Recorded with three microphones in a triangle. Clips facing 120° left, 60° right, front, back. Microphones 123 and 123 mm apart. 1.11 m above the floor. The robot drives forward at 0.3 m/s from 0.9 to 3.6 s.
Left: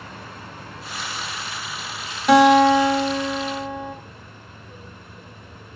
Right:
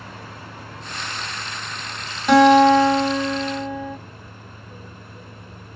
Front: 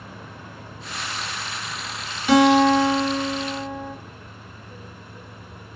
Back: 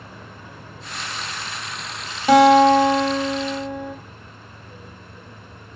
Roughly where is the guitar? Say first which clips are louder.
Right 1 dB, back 3 dB; behind right.